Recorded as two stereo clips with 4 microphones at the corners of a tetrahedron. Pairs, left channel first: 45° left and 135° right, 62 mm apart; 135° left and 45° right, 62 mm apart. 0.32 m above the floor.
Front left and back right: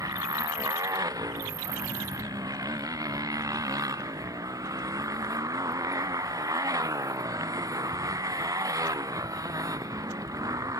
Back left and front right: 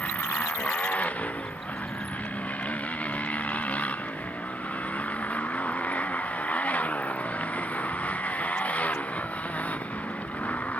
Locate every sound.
0.0 s a motorcycle: 155° right